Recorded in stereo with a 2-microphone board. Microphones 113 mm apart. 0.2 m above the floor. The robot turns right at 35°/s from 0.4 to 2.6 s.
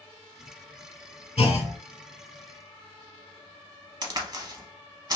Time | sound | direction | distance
1.4 | a clunk | 65° left (ahead or behind) | 0.6 m
4.0 | a crack | 35° right (ahead or behind) | 0.7 m